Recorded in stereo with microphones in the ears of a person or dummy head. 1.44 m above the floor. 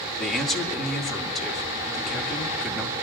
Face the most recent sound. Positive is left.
turn(degrees=0)  # may be behind; listen again after turning